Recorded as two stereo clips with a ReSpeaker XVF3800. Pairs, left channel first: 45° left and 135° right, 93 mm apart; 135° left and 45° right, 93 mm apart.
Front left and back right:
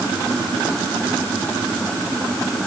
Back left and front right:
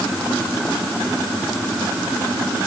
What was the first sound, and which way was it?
Only background noise.